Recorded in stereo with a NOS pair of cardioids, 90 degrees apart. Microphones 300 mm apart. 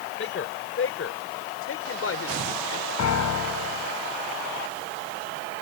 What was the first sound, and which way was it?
A man speaking, 40° left.